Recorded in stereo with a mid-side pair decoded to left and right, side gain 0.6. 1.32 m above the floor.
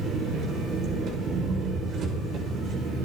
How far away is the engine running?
About 5 m.